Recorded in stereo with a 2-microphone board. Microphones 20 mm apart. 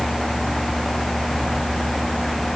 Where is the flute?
I don't hear a flute.